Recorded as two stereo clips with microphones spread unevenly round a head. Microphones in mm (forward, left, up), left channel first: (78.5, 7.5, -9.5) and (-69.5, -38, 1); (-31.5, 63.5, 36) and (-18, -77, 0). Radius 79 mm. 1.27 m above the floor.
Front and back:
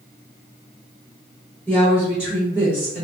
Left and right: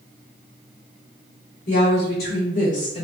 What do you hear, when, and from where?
1.7 s a woman speaking: 105° left, 1.1 m; by 3.0 s 150° left, 0.5 m